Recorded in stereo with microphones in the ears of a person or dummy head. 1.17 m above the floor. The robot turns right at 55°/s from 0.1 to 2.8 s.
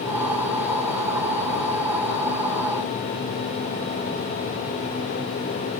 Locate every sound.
Only background noise.